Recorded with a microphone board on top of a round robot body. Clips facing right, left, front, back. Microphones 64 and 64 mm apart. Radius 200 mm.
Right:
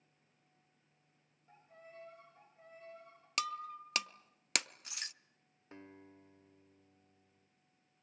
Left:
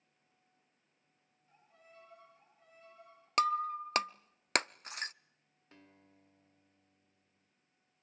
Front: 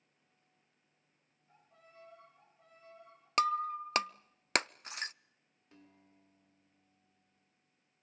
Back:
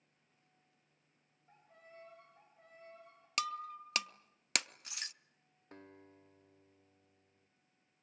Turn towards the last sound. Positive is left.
turn(degrees=-150)